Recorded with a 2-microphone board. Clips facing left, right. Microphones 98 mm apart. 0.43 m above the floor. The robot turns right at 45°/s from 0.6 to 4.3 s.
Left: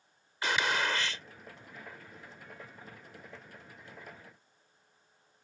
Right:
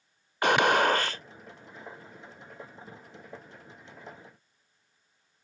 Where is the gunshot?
60° right (ahead or behind); by 1.2 s 40° right (ahead or behind).